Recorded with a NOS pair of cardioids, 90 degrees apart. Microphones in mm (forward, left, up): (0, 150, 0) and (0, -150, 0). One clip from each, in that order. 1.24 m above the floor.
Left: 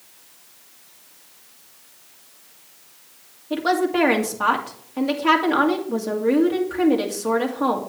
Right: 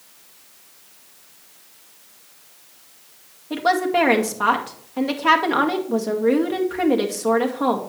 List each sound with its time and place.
3.5 s a woman speaking: 10° right, 2 m